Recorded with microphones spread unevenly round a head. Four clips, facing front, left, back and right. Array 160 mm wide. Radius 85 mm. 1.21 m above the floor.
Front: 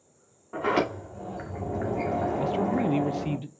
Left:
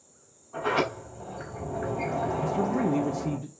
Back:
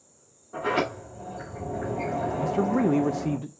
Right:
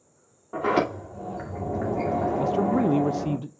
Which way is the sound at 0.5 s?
80° right.